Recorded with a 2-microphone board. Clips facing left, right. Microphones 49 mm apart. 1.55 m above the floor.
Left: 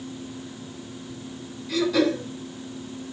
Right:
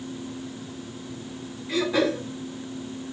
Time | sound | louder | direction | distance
1.7 | throat clearing | left 2 dB | 30° right (ahead or behind) | 5.5 m